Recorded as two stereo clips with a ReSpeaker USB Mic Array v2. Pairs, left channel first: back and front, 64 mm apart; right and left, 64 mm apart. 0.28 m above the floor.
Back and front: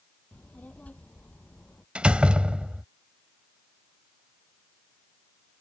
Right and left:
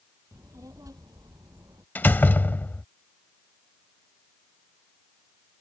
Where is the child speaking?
110° left.